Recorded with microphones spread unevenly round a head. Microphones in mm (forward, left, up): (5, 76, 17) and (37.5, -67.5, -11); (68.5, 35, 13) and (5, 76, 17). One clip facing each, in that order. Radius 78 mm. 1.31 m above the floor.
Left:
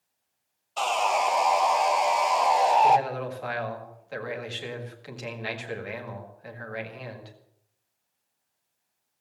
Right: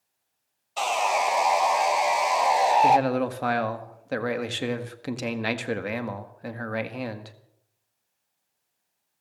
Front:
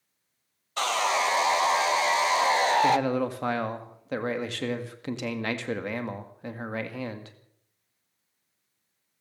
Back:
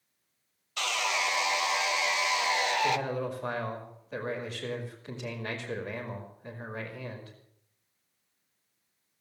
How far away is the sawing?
About 0.7 m.